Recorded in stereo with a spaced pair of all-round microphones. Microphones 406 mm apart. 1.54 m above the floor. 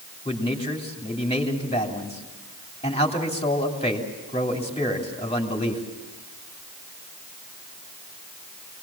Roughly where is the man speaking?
Centre.